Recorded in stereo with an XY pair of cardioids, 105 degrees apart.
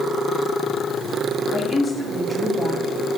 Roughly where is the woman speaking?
Ahead.